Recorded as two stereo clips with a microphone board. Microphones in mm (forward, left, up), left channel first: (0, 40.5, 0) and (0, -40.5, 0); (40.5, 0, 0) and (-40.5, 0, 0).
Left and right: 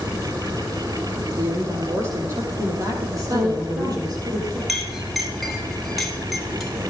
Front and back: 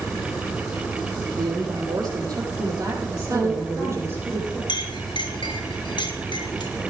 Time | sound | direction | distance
1.4 | a woman speaking | 145° right | 8.5 m
3.3 | a woman speaking | 85° right | 7 m
4.7 | a clink | straight ahead | 2 m